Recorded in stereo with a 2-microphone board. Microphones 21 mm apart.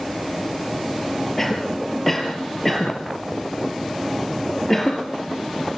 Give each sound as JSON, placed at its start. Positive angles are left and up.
{"t": 1.4, "sound": "a cough", "side_deg": 15, "distance_m": 5.0}